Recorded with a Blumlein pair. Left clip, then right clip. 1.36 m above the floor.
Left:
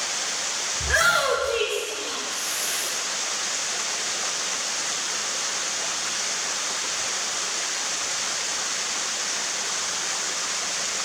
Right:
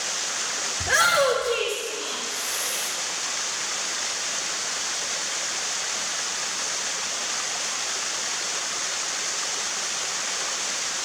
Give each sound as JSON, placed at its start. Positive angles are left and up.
{"t": 0.8, "sound": "a shout", "azimuth_deg": -65, "distance_m": 3.0}